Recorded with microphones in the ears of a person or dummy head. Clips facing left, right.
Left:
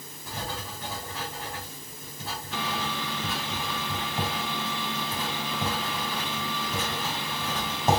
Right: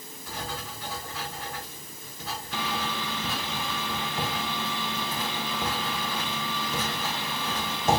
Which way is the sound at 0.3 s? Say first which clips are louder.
Left 1 dB; 30° left (ahead or behind).